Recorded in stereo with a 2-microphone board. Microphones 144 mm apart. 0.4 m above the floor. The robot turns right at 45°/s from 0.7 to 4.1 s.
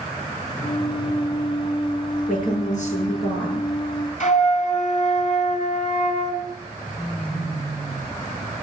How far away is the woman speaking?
About 6.5 m.